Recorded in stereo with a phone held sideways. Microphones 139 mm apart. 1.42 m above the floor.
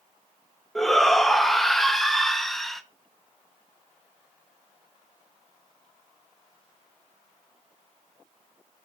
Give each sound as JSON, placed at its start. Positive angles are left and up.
{"t": 0.8, "sound": "a shout", "side_deg": 0, "distance_m": 1.2}